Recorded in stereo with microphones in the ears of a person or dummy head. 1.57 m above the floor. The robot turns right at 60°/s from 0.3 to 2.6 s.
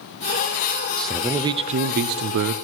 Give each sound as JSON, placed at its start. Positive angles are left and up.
{"t": 1.0, "sound": "a man speaking", "azimuth_deg": 170, "distance_m": 0.6}